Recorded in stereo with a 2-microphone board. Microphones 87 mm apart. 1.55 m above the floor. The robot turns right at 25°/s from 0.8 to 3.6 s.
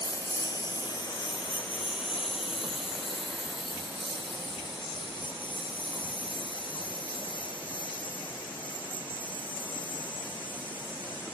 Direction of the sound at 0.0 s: 45° left (ahead or behind).